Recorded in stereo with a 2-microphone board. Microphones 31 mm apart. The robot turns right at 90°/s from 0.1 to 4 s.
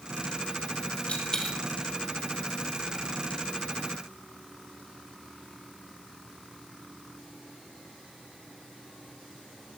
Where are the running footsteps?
I don't hear running footsteps.